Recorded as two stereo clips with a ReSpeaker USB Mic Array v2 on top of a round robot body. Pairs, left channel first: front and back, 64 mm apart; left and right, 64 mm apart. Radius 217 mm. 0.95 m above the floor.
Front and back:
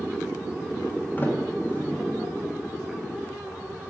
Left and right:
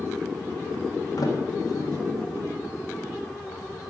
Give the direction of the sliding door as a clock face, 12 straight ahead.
10 o'clock.